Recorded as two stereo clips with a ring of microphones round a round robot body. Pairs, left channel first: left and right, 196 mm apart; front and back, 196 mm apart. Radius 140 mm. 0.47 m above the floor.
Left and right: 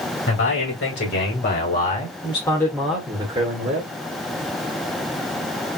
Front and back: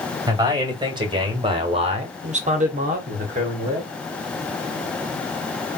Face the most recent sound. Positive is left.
turn(degrees=-125)